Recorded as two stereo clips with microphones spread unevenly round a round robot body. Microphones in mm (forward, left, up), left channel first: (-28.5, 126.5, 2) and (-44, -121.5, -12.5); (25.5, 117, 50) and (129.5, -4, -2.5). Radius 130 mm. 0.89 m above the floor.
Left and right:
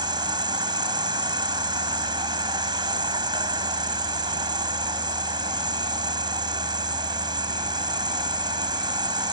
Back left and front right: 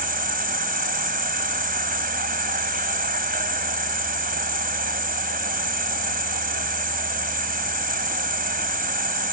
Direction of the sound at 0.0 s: 20° right.